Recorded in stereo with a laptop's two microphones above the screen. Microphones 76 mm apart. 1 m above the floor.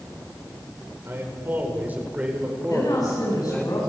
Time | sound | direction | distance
1.1 | a man speaking | 35° right (ahead or behind) | 4.5 m
2.7 | a woman speaking | 55° left (ahead or behind) | 9 m